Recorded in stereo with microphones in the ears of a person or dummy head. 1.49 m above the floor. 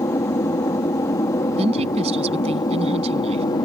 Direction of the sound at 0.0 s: 20° left (ahead or behind).